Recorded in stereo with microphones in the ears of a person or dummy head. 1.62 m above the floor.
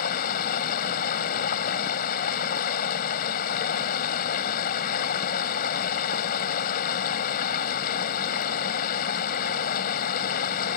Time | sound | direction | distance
0.0 | running water | 50° left (ahead or behind) | ?